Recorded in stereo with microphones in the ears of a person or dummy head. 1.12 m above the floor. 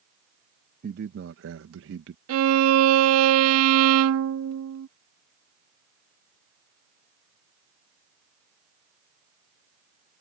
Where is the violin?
70° right (ahead or behind).